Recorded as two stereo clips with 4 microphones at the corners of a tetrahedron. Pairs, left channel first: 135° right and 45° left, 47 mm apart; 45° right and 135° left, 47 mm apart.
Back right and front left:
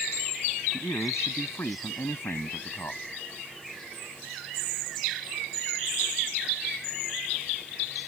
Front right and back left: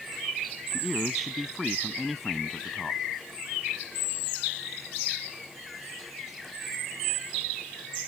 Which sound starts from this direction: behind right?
A man speaking, at 0.7 s.